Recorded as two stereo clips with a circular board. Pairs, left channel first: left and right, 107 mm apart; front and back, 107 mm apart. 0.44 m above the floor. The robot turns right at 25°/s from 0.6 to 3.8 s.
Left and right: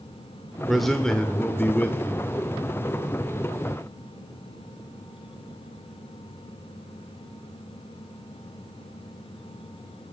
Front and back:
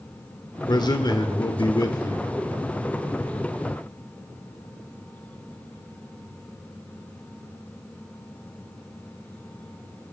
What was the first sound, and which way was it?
A man speaking, straight ahead.